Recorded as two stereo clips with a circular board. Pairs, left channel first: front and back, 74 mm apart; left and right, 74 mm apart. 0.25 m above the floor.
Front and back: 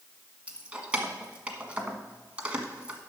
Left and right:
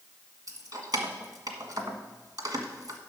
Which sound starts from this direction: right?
Keys jangling, at 0.5 s.